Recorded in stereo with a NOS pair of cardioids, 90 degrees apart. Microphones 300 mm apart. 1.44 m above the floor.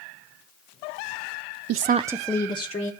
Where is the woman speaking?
55° right, 0.5 m; by 2.9 s 20° left, 1.5 m.